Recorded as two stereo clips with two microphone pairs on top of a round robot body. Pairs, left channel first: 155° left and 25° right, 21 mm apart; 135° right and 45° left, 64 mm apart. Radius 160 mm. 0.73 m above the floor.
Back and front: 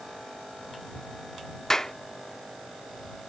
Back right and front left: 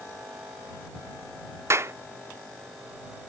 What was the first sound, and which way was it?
A clap, 90° left.